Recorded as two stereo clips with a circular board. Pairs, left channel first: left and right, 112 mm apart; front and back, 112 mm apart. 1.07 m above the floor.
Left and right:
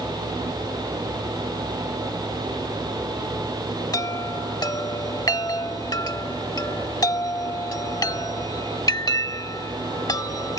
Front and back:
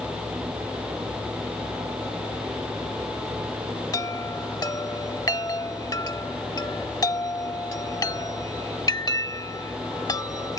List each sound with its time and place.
3.9 s a chime: 45° left